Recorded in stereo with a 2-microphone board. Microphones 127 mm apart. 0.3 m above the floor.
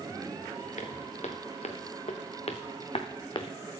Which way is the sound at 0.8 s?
70° left (ahead or behind).